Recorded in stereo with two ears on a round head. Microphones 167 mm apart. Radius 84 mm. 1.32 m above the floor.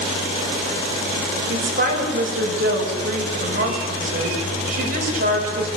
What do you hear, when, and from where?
1.5 s a woman speaking: 45° right (ahead or behind), 6 m